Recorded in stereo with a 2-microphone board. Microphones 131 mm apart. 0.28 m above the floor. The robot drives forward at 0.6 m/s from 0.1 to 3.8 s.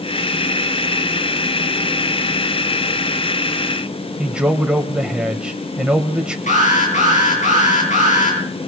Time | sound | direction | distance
4.2 | a man speaking | 10° right (ahead or behind) | 1.1 m
6.5 | an alarm | 75° left (ahead or behind) | 8.5 m